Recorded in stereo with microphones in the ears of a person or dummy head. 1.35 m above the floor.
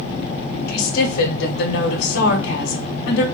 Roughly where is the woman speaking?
Left.